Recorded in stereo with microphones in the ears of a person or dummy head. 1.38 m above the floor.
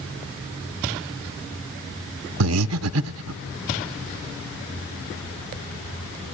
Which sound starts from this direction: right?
Breathing, at 2.4 s.